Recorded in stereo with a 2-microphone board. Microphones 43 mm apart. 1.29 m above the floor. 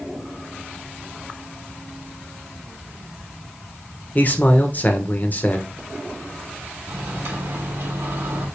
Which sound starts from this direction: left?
A man speaking, at 4.2 s.